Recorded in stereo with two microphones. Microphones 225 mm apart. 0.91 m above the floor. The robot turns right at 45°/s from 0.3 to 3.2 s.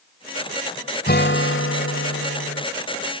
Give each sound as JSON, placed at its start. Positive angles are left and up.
{"t": 1.1, "sound": "a guitar", "azimuth_deg": 45}